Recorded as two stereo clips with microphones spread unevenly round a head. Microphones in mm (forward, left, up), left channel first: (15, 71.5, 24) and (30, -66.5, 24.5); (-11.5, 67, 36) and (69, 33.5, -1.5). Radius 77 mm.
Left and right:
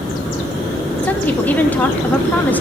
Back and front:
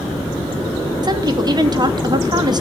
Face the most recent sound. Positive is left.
turn(degrees=15)